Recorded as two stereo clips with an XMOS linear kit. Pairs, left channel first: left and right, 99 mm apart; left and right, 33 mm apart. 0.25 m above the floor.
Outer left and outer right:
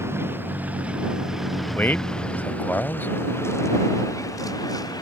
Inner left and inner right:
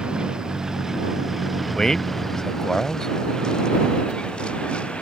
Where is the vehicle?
25° right (ahead or behind); by 5.0 s 40° left (ahead or behind).